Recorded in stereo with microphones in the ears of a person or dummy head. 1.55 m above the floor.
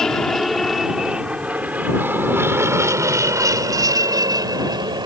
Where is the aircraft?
10° left (ahead or behind); by 5.1 s 15° right (ahead or behind).